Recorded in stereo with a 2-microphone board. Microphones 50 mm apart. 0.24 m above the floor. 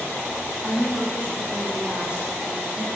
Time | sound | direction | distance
0.6 | a woman speaking | 50° right (ahead or behind) | 2 m